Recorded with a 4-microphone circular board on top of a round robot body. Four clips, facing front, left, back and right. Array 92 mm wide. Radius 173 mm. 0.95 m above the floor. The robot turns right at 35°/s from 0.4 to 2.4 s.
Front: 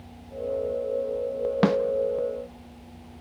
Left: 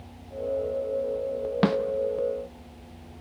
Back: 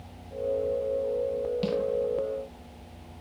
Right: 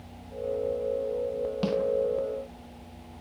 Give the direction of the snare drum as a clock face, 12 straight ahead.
11 o'clock.